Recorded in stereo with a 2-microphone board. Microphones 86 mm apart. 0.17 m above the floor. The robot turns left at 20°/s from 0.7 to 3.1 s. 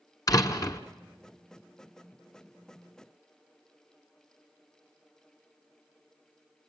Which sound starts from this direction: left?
A door slam, at 0.3 s.